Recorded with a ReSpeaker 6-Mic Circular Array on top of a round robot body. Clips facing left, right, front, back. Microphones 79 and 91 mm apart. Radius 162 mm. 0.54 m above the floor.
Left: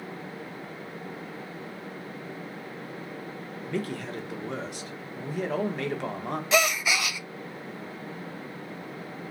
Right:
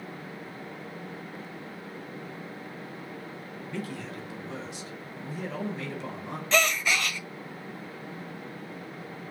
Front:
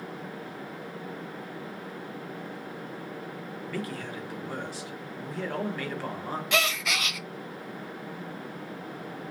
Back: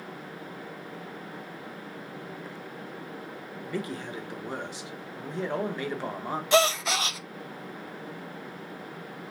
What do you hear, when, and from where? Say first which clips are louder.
3.7 s a man speaking: left 5 dB, back 2 dB; 115° left, 1.4 m
6.5 s a gasp: left 1 dB, back 7 dB; 165° left, 0.5 m